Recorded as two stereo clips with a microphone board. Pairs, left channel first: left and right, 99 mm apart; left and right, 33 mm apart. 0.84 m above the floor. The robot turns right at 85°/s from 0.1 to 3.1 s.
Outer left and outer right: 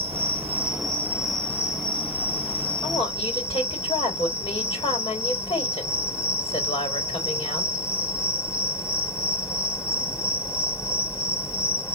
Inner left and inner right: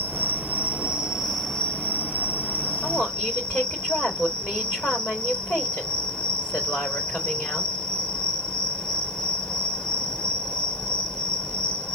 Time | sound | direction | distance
0.0 | an insect | 100° right | 0.8 m
2.8 | a woman speaking | 45° left (ahead or behind) | 3.5 m